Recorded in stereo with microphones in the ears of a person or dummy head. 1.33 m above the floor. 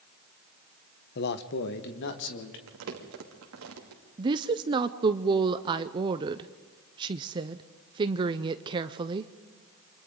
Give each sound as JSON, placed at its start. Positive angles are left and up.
{"t": 1.1, "sound": "a man speaking", "side_deg": 55, "distance_m": 0.9}
{"t": 2.7, "sound": "crumpling", "side_deg": -70, "distance_m": 2.5}
{"t": 4.2, "sound": "a woman speaking", "side_deg": -25, "distance_m": 0.6}